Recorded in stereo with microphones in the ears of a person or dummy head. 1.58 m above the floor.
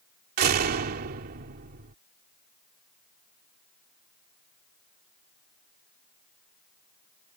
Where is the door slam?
50° right (ahead or behind).